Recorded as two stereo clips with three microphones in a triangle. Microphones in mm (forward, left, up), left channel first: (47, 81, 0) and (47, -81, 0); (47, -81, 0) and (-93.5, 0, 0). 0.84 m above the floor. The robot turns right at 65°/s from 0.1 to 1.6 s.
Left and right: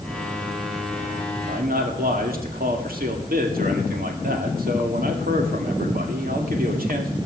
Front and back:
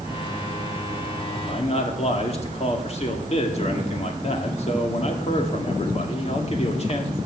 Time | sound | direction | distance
1.5 | a man speaking | 85° right | 2.0 m